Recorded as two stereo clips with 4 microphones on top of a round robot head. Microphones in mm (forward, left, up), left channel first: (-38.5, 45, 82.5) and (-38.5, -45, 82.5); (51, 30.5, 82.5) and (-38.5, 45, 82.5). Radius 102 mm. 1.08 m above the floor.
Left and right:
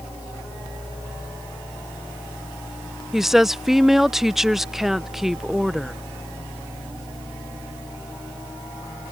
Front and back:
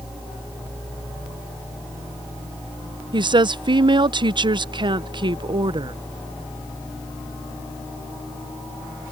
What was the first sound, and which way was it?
A woman speaking, 175° right.